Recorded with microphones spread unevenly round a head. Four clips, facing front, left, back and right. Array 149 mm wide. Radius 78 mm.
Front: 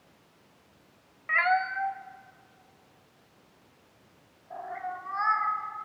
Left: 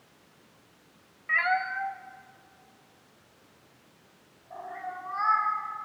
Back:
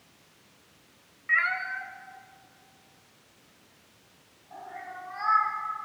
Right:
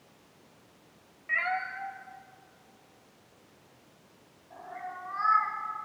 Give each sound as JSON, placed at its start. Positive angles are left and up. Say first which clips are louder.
{"t": 1.3, "sound": "a cat meowing", "louder": "left 5 dB, front 4 dB", "azimuth_deg": 10, "distance_m": 0.6}